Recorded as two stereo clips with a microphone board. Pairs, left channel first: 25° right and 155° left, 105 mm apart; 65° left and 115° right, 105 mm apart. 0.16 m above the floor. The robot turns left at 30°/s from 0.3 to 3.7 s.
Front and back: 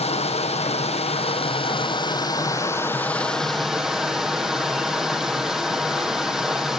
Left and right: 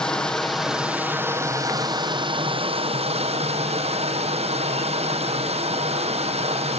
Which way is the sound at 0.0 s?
15° right.